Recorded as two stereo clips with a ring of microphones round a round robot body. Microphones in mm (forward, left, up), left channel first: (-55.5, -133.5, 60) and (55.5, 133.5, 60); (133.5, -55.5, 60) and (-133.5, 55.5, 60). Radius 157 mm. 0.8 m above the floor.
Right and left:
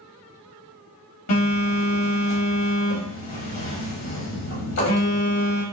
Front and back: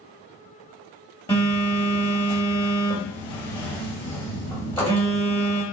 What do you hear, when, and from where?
1.3 s a phone buzzing: 100° right, 2.5 m